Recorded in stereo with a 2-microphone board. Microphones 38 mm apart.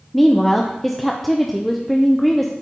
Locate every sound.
0.1 s a woman speaking: 5° left (ahead or behind), 0.6 m